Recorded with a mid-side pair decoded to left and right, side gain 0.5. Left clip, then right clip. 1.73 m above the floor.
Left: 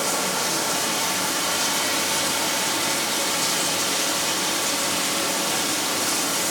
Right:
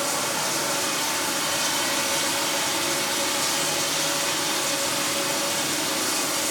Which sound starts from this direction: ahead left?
Running water, at 0.0 s.